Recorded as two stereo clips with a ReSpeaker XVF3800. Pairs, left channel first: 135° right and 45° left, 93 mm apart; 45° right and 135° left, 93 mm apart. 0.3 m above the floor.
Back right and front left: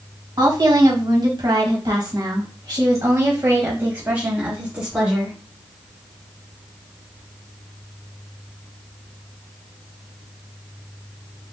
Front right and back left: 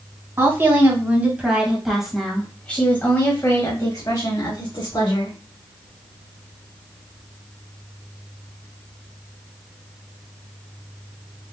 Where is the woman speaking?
75° left, 1.8 m; by 5.4 s 35° right, 1.9 m.